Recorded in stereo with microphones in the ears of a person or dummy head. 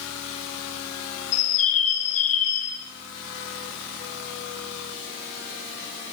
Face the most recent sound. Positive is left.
turn(degrees=75)  # may be behind; listen again after turning